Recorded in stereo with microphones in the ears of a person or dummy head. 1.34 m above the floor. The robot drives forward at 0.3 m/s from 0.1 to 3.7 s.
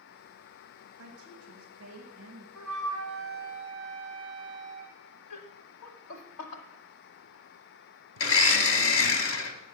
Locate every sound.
1.0 s a woman speaking: 85° right, 1.4 m; by 2.5 s 70° right (ahead or behind), 1.5 m
2.5 s a flute: 5° right (ahead or behind), 3.5 m
5.3 s laughter: 60° left (ahead or behind), 1.0 m
8.2 s a blender: 60° left (ahead or behind), 0.8 m